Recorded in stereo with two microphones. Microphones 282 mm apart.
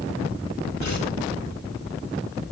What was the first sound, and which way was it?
Tearing paper, 75° left (ahead or behind).